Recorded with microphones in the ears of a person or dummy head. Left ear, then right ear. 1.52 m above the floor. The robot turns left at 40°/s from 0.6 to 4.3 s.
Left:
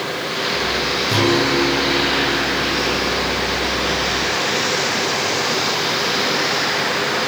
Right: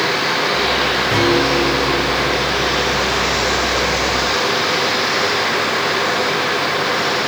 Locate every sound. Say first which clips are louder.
1.1 s a guitar: even; straight ahead, 7 m; by 3.5 s 90° right, 7 m